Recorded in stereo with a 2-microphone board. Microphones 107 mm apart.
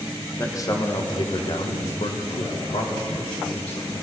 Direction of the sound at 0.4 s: 25° left (ahead or behind).